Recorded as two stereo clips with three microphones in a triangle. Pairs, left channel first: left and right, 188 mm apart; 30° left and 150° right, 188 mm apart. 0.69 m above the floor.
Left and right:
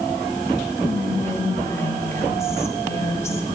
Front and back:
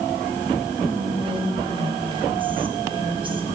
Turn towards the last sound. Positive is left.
turn(degrees=160)